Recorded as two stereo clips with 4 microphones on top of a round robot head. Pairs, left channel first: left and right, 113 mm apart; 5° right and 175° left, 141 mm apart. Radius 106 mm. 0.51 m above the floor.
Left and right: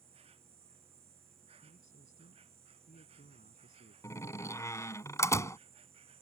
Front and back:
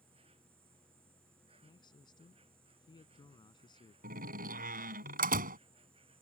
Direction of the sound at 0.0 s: 125° right.